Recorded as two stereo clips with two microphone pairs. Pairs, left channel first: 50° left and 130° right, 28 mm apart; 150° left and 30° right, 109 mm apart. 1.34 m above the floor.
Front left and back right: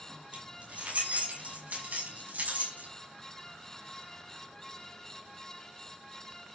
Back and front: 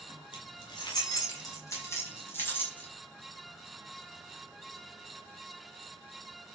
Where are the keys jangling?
165° right, 6.5 m; by 2.9 s 135° right, 6.5 m.